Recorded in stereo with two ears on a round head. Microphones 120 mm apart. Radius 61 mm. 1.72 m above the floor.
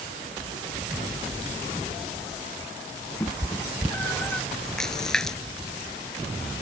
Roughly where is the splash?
Centre.